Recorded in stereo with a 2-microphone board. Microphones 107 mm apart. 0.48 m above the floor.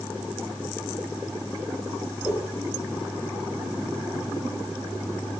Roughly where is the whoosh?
Centre.